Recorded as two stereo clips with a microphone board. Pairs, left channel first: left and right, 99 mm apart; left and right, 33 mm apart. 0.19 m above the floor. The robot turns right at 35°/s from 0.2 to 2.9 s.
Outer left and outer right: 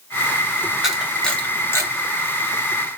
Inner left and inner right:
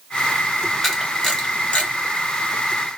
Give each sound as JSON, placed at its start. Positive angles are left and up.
{"t": 0.8, "sound": "a camera shutter", "side_deg": -5, "distance_m": 1.9}